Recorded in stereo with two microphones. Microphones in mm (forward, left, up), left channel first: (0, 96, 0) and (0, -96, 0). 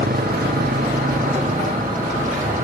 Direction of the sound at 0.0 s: 50° right (ahead or behind).